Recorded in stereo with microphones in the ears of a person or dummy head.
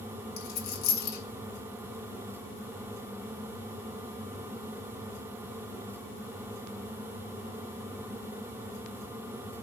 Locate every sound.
0.4 s a dropped coin: 50° left (ahead or behind), 2 m